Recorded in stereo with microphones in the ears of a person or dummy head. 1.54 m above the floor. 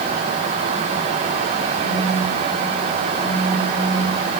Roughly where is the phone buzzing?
Left.